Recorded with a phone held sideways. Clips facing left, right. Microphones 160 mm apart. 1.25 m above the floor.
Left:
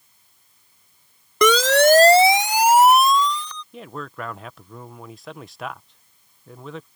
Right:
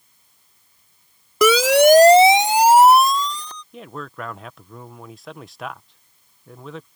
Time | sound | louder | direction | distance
1.4 | a siren | right 2 dB | 5° right (ahead or behind) | ?
3.7 | a man speaking | even | centre (ahead or behind) | ?